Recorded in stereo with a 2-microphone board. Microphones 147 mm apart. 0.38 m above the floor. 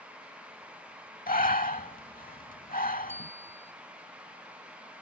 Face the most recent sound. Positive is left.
turn(degrees=-15)  # may be behind; listen again after turning